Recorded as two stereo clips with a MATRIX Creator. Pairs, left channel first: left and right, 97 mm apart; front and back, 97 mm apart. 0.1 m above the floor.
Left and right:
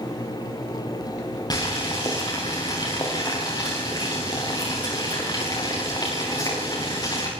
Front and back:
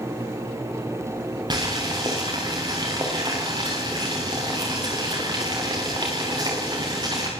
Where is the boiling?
135° left, 8 m.